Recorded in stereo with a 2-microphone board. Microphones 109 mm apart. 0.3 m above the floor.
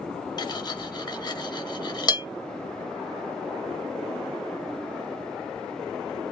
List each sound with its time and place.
0.4 s cutlery clinking: 40° left (ahead or behind), 0.6 m